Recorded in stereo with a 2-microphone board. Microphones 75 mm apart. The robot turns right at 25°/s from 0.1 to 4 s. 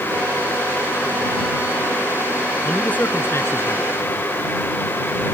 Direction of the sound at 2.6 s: 15° left.